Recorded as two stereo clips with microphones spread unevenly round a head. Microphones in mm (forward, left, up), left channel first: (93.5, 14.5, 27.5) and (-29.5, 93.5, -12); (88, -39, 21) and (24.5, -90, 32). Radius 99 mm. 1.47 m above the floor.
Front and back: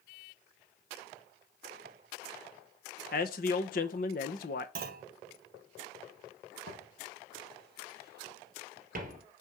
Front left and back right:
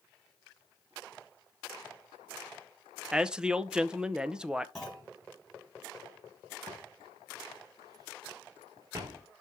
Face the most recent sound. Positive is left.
turn(degrees=180)